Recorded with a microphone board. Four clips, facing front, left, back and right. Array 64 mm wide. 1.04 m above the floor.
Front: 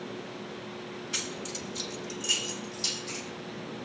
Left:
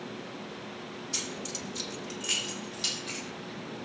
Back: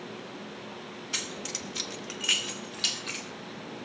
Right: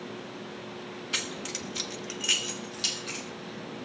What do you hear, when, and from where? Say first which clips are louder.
1.1 s keys jangling: right 4 dB, back 1 dB; 95° right, 0.9 m; by 3.2 s straight behind, 2 m